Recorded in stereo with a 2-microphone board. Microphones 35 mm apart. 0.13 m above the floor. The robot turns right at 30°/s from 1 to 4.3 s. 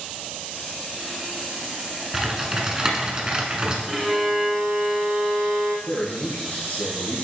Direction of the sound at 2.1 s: 10° right (ahead or behind).